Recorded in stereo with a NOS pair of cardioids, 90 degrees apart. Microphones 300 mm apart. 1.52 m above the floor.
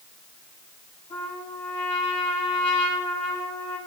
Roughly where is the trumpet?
Ahead.